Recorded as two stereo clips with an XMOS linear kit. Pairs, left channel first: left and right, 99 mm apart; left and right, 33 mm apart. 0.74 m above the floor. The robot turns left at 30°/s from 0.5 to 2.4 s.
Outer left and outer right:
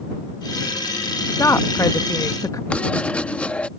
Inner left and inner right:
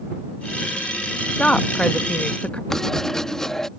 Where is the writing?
15° left (ahead or behind).